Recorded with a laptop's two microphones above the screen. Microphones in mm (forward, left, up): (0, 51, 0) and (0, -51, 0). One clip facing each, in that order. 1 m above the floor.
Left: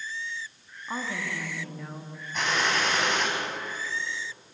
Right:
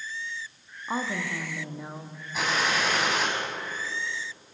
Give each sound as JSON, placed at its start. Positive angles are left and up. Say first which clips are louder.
{"t": 0.9, "sound": "a woman speaking", "louder": "right 3 dB", "side_deg": -20, "distance_m": 1.5}
{"t": 2.3, "sound": "a gunshot", "louder": "even", "side_deg": -5, "distance_m": 4.5}